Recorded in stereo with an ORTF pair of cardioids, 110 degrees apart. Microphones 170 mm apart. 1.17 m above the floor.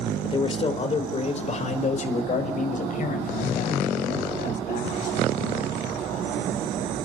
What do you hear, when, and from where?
0.2 s a man speaking: 30° left, 3.5 m; by 6.6 s 60° left, 7.5 m